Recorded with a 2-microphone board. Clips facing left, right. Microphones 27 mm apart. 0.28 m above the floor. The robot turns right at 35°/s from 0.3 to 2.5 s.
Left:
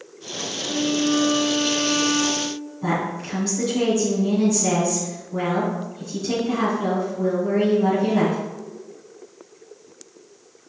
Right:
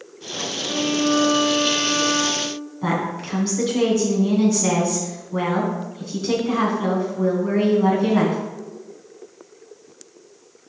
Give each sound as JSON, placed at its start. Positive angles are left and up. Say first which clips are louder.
{"t": 0.6, "sound": "a violin", "louder": "right 1 dB", "azimuth_deg": 150, "distance_m": 1.8}
{"t": 2.8, "sound": "a woman speaking", "louder": "right 1 dB", "side_deg": -35, "distance_m": 2.5}